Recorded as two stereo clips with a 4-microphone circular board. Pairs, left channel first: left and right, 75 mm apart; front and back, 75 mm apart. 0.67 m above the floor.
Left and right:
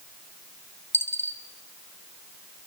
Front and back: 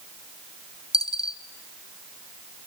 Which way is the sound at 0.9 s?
30° left.